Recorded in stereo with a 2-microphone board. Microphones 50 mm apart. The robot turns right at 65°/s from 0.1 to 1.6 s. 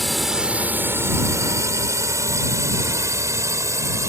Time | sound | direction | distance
0.0 | a drone | 5° left (ahead or behind) | ?